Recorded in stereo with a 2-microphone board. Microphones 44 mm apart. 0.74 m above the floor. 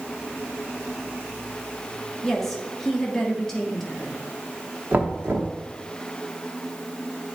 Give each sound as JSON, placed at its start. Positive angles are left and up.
{"t": 2.2, "sound": "a woman speaking", "side_deg": 10, "distance_m": 1.2}
{"t": 4.9, "sound": "knocking", "side_deg": -45, "distance_m": 0.8}